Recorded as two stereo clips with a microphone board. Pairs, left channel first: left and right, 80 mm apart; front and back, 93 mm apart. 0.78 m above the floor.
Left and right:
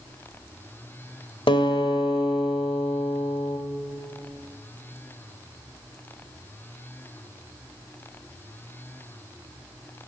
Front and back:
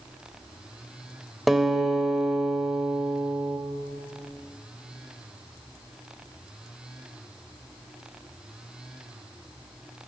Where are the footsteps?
No footsteps in this recording.